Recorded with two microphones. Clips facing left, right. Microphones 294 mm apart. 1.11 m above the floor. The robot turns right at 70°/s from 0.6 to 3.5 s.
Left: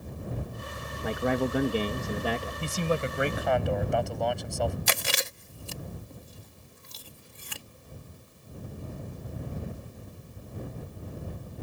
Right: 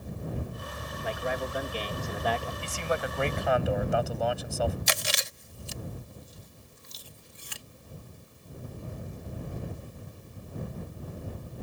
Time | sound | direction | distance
1.0 | a man speaking | 60° left | ?
2.6 | a man speaking | 120° left | ?
4.9 | chewing | 65° left (ahead or behind) | ?